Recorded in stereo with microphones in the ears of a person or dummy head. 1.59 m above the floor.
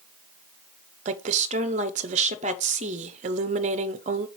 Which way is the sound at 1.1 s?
45° right (ahead or behind).